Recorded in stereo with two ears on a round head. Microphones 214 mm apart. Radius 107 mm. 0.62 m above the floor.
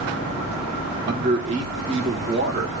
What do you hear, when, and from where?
1.1 s a man speaking: 30° right (ahead or behind), 1.6 m